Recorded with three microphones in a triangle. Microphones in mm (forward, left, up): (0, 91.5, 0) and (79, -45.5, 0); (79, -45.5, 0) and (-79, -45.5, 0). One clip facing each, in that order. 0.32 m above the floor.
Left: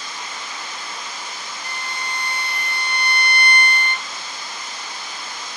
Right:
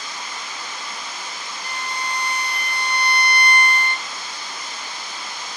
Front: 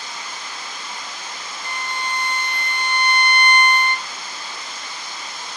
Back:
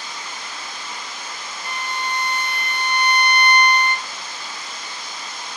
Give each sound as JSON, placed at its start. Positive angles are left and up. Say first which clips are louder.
{"t": 1.6, "sound": "a violin", "louder": "right 3 dB, back 1 dB", "azimuth_deg": -110, "distance_m": 3.5}